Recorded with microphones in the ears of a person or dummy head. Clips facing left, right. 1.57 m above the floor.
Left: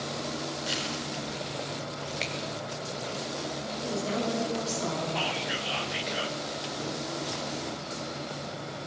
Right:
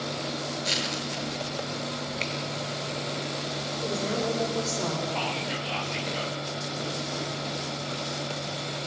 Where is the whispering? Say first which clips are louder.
Right 1 dB; 10° left (ahead or behind), 1.0 m.